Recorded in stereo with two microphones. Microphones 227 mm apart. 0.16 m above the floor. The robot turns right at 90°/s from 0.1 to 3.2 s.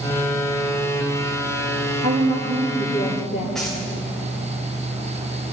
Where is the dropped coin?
Centre (ahead or behind), 6 m.